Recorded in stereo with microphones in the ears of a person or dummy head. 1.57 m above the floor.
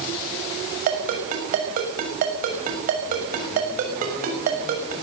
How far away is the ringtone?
About 6.5 m.